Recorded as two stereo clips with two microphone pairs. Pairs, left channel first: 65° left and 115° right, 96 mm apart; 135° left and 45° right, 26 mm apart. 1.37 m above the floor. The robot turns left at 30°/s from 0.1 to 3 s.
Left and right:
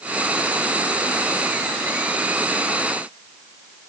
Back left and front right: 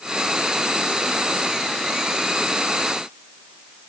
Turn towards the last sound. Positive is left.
No sound to turn to.